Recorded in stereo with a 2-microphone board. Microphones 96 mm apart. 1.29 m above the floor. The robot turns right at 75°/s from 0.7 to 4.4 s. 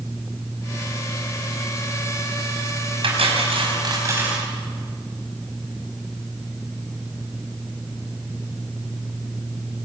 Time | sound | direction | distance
3.0 | cutlery clinking | 110° right | 5.5 m